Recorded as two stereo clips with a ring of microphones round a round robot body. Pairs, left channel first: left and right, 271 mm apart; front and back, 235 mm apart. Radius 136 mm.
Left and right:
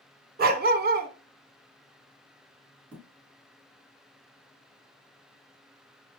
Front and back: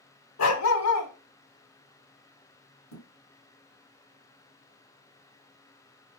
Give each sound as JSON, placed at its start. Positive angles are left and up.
{"t": 0.4, "sound": "a dog barking", "azimuth_deg": -30, "distance_m": 1.1}
{"t": 2.9, "sound": "a thud", "azimuth_deg": -5, "distance_m": 3.0}